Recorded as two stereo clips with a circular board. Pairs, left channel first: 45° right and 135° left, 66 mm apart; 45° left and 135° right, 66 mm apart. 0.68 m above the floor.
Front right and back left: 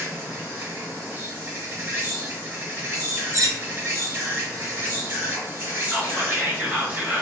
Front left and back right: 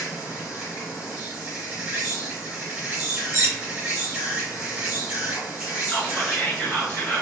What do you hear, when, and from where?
0.0 s an insect: 175° left, 1.9 m
3.3 s cutlery clinking: 170° left, 0.5 m
5.9 s whispering: 95° left, 1.1 m